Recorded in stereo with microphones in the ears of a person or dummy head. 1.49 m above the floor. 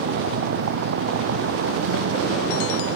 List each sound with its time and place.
0.0 s a vehicle: 60° right (ahead or behind)